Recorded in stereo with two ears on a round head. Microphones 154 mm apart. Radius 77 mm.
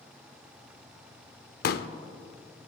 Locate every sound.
1.6 s a pop: 60° left (ahead or behind), 0.6 m